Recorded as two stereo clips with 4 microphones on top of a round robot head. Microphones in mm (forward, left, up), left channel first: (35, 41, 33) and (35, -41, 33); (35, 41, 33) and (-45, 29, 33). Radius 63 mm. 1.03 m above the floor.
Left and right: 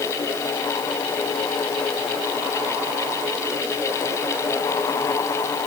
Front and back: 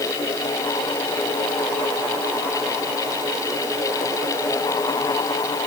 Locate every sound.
Only background noise.